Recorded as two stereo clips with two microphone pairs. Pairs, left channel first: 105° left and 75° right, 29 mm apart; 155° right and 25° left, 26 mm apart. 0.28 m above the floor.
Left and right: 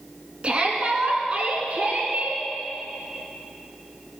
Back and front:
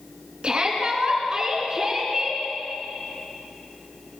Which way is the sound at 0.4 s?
25° right.